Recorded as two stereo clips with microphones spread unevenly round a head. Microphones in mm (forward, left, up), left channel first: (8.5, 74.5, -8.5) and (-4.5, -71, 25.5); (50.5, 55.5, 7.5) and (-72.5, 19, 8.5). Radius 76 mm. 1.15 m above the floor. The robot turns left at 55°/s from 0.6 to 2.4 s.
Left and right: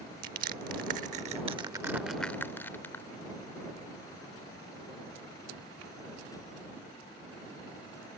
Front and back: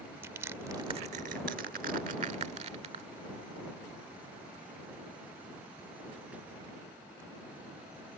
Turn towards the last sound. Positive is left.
turn(degrees=170)